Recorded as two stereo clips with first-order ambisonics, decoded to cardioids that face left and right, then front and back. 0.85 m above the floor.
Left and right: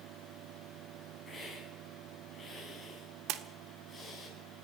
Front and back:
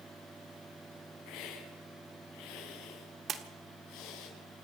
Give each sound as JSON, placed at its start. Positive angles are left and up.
{"t": 1.3, "sound": "a hiss", "azimuth_deg": 10, "distance_m": 6.5}
{"t": 3.3, "sound": "a splash", "azimuth_deg": -120, "distance_m": 1.5}